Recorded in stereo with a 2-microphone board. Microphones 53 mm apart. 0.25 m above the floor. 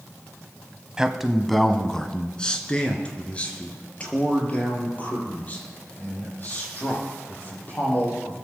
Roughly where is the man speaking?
Centre.